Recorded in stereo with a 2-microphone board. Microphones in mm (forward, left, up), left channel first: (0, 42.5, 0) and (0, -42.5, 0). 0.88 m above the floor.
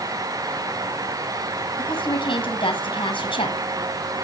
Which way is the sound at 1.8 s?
80° left.